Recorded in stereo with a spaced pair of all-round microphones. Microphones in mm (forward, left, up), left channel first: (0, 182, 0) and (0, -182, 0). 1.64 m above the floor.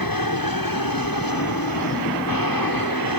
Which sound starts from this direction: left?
An aircraft, at 0.0 s.